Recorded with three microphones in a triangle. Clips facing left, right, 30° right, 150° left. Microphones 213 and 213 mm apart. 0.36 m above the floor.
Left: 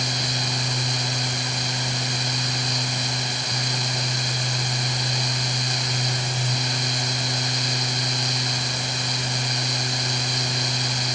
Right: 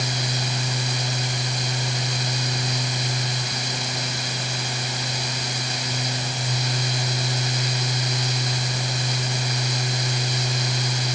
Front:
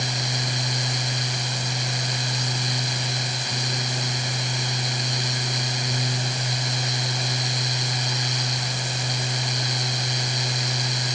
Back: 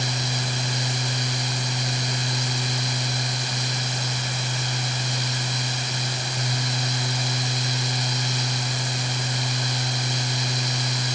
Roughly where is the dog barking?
No dog barking in this recording.